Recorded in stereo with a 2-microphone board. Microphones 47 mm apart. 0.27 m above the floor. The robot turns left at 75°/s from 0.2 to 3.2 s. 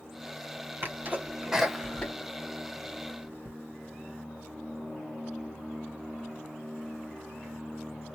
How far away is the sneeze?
About 1.6 m.